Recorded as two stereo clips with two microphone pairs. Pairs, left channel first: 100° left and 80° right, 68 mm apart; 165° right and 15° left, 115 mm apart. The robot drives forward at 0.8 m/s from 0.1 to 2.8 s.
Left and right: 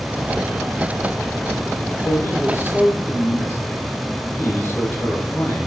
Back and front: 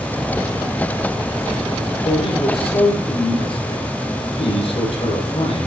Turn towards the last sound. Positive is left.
turn(degrees=160)